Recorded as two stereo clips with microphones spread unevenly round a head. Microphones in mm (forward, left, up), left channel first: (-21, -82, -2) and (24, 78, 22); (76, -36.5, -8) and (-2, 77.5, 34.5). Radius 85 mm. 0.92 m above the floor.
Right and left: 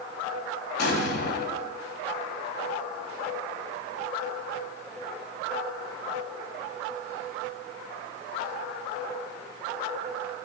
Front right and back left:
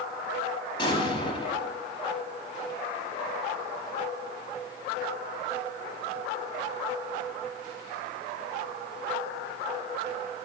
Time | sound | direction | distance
0.8 | an explosion | 130° right | 1.1 m